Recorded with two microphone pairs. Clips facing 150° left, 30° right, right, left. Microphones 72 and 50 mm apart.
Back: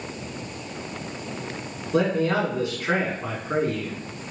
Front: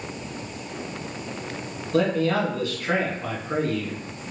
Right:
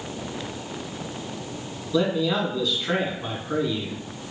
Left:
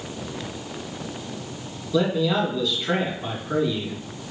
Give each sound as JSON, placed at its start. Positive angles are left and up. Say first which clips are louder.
{"t": 1.9, "sound": "a man speaking", "louder": "even, left 1 dB", "azimuth_deg": -175, "distance_m": 1.2}